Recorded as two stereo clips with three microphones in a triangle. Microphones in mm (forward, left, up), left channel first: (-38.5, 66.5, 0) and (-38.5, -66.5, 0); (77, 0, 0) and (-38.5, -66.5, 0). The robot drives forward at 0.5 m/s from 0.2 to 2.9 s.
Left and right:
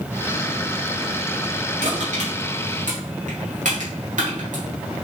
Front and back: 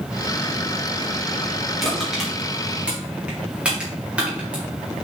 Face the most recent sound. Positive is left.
turn(degrees=-70)